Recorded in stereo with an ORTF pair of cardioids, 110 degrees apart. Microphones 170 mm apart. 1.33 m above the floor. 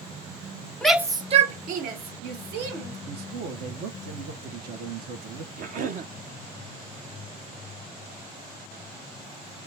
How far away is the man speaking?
About 1.2 m.